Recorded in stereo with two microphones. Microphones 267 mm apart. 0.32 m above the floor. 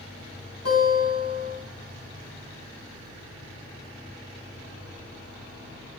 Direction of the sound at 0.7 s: 65° left (ahead or behind).